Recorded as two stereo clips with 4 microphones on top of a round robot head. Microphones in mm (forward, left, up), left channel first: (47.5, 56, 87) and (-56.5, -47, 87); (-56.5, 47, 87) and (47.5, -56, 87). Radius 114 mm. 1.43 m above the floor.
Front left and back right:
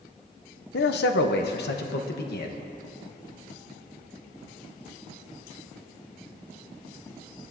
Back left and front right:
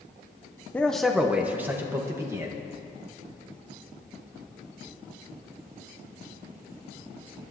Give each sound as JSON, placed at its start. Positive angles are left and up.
{"t": 0.7, "sound": "a man speaking", "azimuth_deg": 55, "distance_m": 0.6}